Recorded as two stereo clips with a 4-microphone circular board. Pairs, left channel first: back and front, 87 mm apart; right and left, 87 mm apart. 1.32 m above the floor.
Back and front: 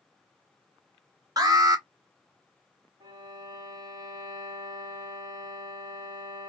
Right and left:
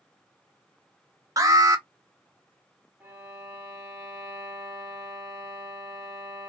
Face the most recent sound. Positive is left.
turn(degrees=20)